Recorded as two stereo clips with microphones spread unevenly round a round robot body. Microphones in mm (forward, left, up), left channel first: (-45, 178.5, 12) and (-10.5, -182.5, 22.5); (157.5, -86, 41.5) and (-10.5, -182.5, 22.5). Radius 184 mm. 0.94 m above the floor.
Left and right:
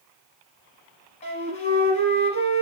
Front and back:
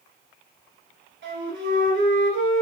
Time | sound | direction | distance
1.2 | a flute | 165° left | 1.3 m